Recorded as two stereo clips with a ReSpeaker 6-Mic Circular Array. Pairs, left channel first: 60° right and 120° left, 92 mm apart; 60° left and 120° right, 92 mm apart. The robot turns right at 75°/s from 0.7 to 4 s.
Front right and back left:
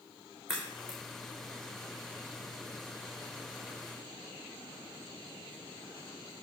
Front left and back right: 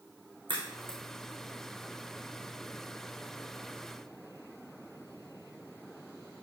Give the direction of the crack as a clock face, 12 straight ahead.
5 o'clock.